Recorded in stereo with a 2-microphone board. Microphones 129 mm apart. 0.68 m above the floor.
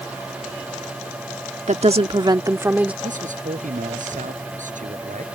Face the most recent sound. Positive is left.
turn(degrees=-75)  # may be behind; listen again after turning